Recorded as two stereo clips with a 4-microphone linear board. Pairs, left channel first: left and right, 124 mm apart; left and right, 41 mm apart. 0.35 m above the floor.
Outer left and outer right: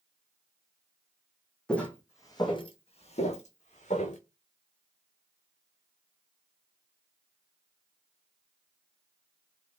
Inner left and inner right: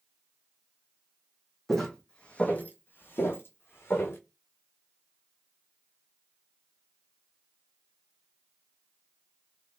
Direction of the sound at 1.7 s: 5° left (ahead or behind).